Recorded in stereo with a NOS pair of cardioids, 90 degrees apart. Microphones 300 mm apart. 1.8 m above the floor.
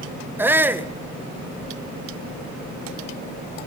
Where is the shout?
5° right, 1.7 m.